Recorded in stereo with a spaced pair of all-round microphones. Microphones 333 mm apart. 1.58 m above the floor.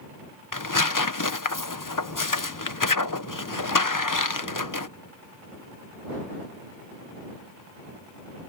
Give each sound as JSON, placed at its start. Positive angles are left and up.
{"t": 0.5, "sound": "tearing paper", "side_deg": 60}